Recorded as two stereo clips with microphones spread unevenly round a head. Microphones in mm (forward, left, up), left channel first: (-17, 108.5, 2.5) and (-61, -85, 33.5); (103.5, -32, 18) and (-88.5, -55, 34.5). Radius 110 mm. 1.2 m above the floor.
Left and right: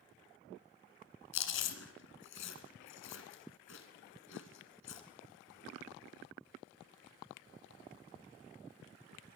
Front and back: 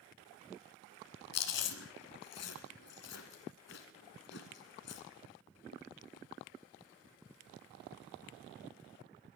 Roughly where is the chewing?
Ahead left.